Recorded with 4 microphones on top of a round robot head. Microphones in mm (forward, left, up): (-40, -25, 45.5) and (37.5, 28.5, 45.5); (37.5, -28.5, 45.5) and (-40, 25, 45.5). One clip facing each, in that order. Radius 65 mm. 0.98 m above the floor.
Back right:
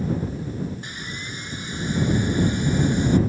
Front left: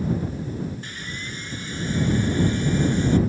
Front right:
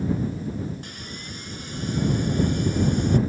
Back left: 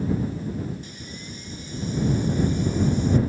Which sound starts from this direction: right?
Sawing, at 0.8 s.